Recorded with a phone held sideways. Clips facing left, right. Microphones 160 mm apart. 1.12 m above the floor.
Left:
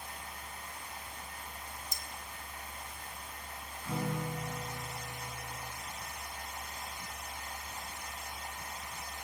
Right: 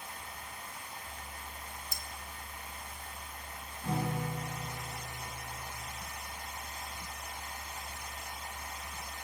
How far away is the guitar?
About 7.5 m.